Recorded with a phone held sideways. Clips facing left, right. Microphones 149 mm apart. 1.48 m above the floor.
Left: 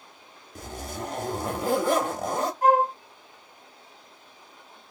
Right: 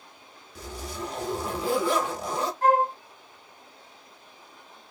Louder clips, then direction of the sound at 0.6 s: Left 1 dB; 45° left (ahead or behind).